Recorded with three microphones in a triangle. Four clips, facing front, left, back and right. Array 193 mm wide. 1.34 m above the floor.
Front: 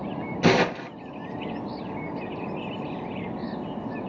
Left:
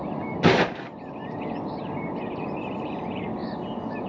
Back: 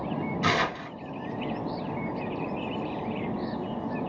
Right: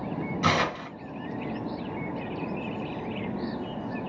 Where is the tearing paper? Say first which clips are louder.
Left 6 dB, front 8 dB; 55° left, 0.7 m.